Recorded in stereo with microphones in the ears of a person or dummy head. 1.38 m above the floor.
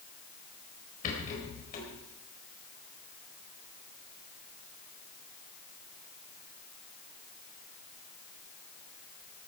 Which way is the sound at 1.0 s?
45° left (ahead or behind).